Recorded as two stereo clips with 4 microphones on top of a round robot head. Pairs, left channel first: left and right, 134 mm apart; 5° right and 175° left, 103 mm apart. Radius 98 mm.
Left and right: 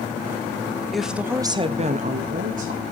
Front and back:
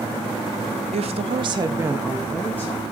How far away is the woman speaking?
About 1.2 m.